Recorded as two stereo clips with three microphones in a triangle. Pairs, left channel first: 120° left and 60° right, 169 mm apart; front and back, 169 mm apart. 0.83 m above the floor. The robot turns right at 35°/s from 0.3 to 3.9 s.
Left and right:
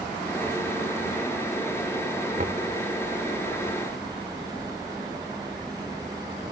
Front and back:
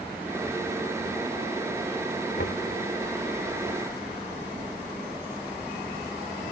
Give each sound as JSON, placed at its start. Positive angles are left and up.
{"t": 2.4, "sound": "knocking", "azimuth_deg": -15}